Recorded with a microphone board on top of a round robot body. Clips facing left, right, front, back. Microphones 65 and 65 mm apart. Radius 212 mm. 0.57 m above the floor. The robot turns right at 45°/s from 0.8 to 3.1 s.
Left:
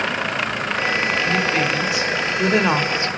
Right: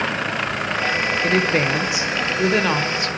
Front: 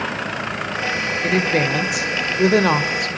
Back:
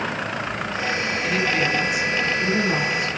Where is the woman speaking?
55° right, 2.5 m; by 3.1 s 30° left, 2.5 m.